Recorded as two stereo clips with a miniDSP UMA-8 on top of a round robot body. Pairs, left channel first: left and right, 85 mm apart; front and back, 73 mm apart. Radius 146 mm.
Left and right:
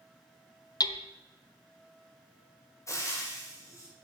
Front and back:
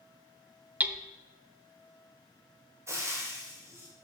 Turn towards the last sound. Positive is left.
turn(degrees=140)